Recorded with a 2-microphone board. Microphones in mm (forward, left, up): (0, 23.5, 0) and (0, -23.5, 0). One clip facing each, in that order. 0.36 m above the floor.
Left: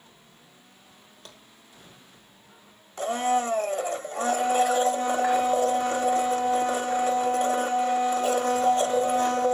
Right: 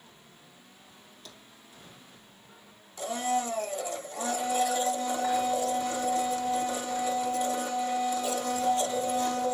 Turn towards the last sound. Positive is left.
turn(degrees=50)  # may be behind; listen again after turning